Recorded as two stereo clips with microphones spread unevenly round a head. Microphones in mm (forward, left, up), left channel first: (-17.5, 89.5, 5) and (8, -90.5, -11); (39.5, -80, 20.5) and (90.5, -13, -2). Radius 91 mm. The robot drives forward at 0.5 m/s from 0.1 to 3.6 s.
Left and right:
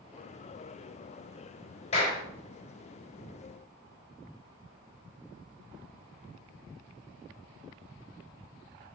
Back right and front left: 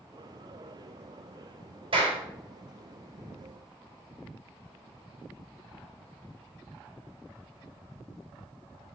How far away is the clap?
About 4.5 m.